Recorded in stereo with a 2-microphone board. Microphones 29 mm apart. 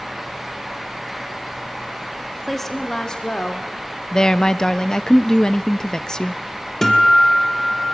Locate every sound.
2.5 s a woman speaking: 5° left (ahead or behind), 2.0 m; by 3.7 s 35° left (ahead or behind), 2.5 m
4.1 s a woman speaking: 20° left (ahead or behind), 0.6 m
6.8 s a guitar: 10° left (ahead or behind), 2.5 m